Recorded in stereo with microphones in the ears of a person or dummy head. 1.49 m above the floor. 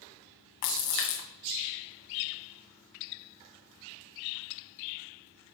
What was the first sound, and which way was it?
A splash, 60° left (ahead or behind).